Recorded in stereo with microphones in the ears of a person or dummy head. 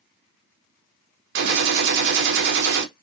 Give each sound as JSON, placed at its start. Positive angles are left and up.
{"t": 1.4, "sound": "a gunshot", "side_deg": -65, "distance_m": 0.7}